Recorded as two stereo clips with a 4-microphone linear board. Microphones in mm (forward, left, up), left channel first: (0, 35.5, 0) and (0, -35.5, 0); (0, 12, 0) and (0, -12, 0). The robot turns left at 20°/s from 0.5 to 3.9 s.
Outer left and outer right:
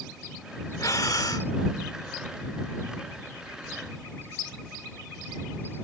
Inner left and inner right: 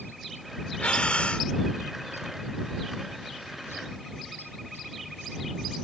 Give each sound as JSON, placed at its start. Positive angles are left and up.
{"t": 0.8, "sound": "breathing", "side_deg": 50}